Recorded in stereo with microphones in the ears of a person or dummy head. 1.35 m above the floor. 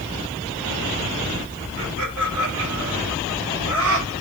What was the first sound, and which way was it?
Laughter, 65° right (ahead or behind).